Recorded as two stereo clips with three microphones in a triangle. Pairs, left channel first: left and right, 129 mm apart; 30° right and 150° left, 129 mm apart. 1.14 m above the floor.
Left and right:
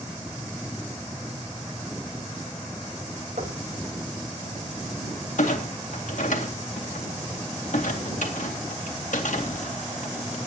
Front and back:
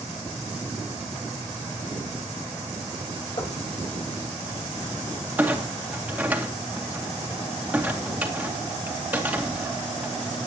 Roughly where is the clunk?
Left.